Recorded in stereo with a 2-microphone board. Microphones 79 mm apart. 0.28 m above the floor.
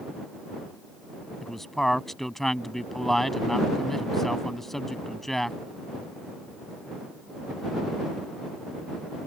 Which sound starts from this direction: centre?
A man speaking, at 1.4 s.